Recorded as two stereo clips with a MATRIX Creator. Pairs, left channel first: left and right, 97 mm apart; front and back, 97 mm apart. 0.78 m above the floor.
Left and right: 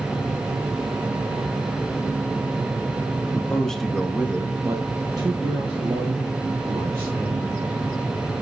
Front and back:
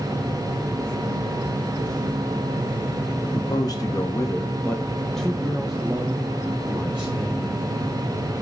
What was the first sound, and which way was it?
A man speaking, 20° left.